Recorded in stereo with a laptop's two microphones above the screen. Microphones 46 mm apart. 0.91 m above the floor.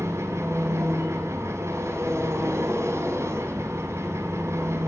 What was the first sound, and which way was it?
An engine running, 80° right.